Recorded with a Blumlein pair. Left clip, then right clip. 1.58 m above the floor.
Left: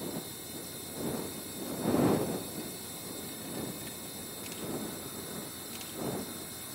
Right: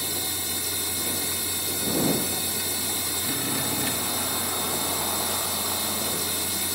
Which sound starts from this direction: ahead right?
A machine running, at 0.0 s.